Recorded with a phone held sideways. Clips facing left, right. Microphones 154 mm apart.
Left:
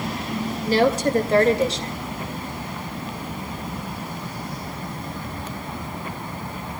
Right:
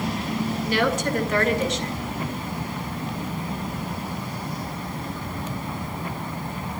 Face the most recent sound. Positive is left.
turn(degrees=35)  # may be behind; listen again after turning